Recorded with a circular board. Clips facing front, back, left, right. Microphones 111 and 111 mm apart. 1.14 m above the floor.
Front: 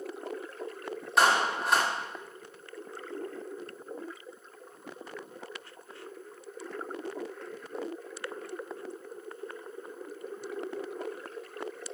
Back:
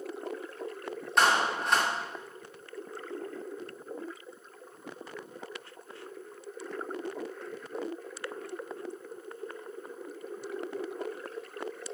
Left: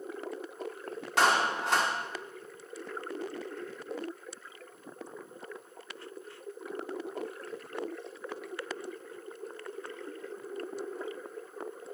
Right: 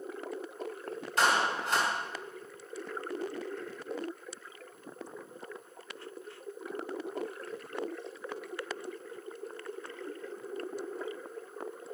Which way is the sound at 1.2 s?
85° left.